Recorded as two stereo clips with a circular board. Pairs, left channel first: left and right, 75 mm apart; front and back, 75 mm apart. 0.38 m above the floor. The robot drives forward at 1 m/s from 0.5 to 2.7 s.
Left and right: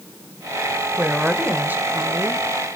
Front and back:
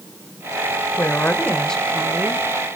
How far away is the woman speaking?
About 1.5 m.